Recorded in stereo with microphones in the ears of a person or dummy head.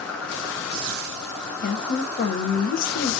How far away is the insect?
About 0.9 m.